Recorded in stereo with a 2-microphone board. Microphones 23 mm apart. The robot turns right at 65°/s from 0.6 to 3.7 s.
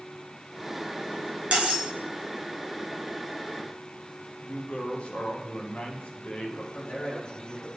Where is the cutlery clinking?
55° right (ahead or behind), 1.3 m; by 1.9 s 70° right (ahead or behind), 1.3 m.